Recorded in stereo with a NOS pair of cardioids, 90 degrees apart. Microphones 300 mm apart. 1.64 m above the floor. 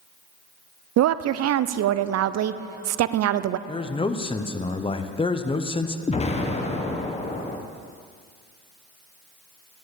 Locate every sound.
1.0 s a woman speaking: 60° right, 0.5 m
3.7 s a man speaking: 15° left, 0.9 m
6.1 s an explosion: 20° left, 1.3 m